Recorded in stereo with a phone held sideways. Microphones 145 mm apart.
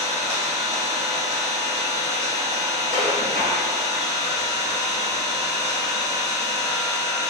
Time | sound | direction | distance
0.0 | an engine running | 55° right (ahead or behind) | 1.0 m
2.9 | dishes clattering | 70° right (ahead or behind) | 1.0 m